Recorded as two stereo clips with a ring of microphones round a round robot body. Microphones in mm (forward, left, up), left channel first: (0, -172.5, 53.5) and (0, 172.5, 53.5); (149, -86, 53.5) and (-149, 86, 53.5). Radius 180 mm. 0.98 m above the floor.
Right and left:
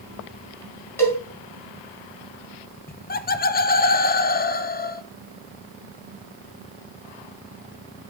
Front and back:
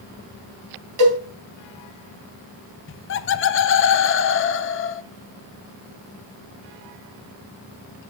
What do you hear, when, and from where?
1.0 s a cowbell: 175° right, 3 m
2.9 s laughter: 45° right, 0.6 m